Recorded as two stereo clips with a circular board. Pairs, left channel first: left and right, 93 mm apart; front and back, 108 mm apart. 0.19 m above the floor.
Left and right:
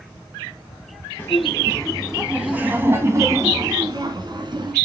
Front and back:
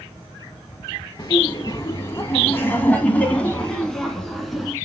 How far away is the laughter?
About 1.8 m.